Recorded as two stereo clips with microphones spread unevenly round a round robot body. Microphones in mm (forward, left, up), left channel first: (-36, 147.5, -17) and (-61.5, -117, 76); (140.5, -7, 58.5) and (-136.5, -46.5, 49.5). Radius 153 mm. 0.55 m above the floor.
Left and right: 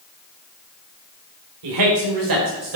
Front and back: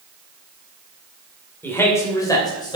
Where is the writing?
I don't hear writing.